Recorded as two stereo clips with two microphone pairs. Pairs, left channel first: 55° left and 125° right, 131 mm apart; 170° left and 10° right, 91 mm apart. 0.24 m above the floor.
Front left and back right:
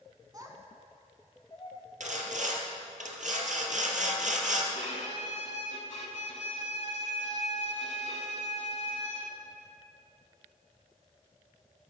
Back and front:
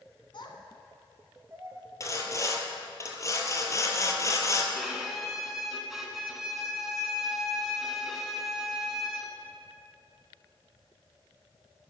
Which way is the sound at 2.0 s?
135° right.